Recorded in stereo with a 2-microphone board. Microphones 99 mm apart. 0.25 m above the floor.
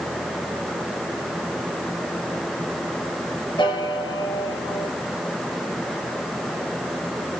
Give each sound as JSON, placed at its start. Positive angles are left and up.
{"t": 3.6, "sound": "a piano", "side_deg": 50, "distance_m": 3.0}